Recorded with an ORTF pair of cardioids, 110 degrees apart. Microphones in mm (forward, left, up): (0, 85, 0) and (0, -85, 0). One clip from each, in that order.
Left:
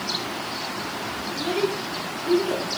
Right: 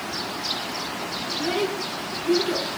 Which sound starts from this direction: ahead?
A child speaking, at 1.3 s.